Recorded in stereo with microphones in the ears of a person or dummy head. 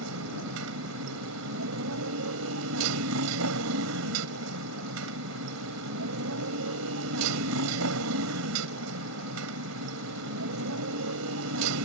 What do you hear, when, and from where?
0.0 s a motorcycle: 75° right (ahead or behind)